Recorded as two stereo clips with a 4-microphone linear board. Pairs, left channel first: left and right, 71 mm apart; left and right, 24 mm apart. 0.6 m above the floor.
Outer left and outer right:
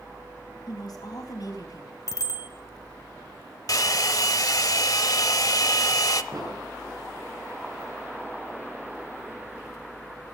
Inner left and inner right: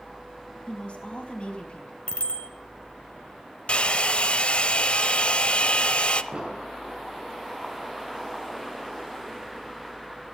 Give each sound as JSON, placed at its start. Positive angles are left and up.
{"t": 0.7, "sound": "a woman speaking", "side_deg": 65, "distance_m": 4.0}
{"t": 2.1, "sound": "a bicycle bell", "side_deg": 60, "distance_m": 2.5}
{"t": 3.7, "sound": "a hair dryer", "side_deg": 60, "distance_m": 0.8}
{"t": 6.3, "sound": "an explosion", "side_deg": -55, "distance_m": 9.0}